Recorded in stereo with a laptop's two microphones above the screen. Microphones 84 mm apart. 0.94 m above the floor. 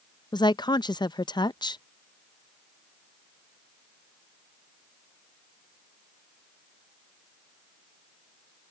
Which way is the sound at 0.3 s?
55° left (ahead or behind).